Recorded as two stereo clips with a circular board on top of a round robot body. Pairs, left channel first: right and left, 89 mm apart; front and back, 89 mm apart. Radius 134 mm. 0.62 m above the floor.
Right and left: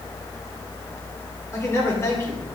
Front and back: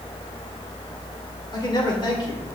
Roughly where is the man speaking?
Ahead right.